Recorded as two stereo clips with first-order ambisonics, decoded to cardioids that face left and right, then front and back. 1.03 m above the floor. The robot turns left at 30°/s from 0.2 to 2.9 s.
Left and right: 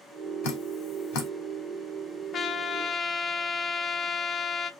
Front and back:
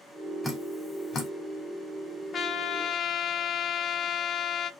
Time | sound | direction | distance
0.4 | dripping | 85° left | 1.5 m
2.3 | a trumpet | 50° left | 0.5 m